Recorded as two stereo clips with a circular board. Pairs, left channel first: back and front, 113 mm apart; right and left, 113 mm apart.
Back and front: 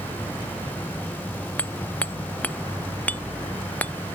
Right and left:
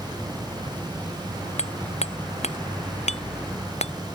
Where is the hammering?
105° right.